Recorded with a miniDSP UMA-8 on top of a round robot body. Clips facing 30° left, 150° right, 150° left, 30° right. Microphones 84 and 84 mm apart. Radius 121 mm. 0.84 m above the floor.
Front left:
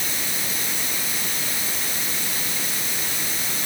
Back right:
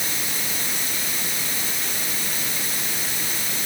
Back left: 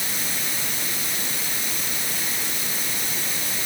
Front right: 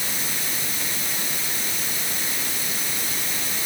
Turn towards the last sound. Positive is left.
No sound to turn to.